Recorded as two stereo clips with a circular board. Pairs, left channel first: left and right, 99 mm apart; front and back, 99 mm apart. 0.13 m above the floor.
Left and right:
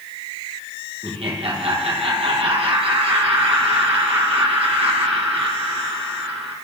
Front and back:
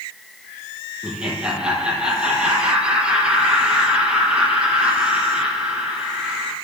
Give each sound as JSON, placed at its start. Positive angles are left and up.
{"t": 1.0, "sound": "laughter", "azimuth_deg": -100, "distance_m": 5.0}